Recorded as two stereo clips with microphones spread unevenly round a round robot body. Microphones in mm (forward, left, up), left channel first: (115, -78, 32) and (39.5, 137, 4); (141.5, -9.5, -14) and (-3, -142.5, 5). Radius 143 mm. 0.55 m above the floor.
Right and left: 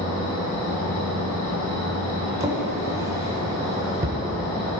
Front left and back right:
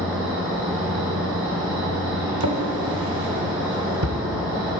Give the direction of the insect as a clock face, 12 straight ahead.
2 o'clock.